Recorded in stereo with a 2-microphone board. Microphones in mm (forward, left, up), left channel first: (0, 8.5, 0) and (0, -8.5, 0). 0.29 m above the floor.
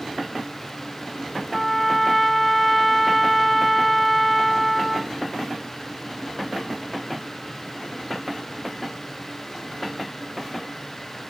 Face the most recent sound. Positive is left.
turn(degrees=10)  # may be behind; listen again after turning